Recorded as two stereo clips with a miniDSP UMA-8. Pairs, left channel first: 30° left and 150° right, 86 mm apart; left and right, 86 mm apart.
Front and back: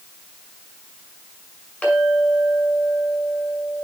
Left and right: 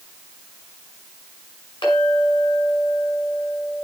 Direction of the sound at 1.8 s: 105° left.